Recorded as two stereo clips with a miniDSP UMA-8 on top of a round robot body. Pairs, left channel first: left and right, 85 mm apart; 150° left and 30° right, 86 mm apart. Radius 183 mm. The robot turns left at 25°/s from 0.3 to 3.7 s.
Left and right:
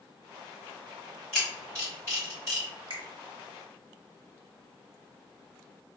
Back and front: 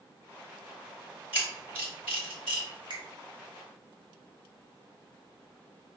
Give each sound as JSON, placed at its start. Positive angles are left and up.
{"t": 1.3, "sound": "a camera shutter", "azimuth_deg": 170, "distance_m": 0.9}
{"t": 2.9, "sound": "a finger snap", "azimuth_deg": -65, "distance_m": 1.0}